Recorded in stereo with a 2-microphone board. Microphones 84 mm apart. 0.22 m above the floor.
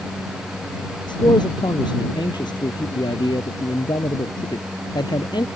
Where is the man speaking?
70° left (ahead or behind).